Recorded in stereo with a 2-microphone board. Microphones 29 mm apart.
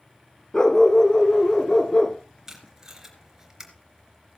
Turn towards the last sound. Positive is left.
turn(degrees=-20)  # may be behind; listen again after turning